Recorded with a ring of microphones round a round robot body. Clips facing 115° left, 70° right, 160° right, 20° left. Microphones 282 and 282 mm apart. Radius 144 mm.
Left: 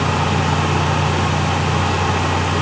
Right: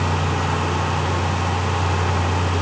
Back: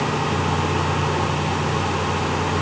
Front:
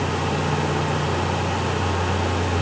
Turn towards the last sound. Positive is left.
No sound to turn to.